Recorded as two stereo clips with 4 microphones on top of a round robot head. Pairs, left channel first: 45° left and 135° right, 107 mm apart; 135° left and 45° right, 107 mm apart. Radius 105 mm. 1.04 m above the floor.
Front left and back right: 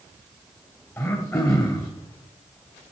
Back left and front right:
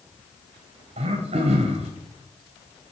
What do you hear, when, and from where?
1.0 s throat clearing: 15° right, 1.9 m